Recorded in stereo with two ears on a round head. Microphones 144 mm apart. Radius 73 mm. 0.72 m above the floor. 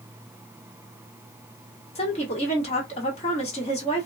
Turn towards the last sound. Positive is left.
turn(degrees=40)  # may be behind; listen again after turning